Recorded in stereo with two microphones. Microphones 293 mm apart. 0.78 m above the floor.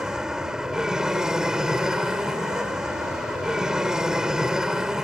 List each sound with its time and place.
0.0 s an aircraft: centre (ahead or behind)